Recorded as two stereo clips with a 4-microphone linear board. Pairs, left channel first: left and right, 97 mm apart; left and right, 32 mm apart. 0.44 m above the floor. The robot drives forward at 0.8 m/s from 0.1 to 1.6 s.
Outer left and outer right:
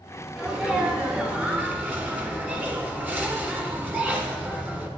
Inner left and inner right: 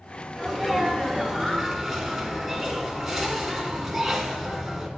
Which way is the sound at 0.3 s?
10° right (ahead or behind).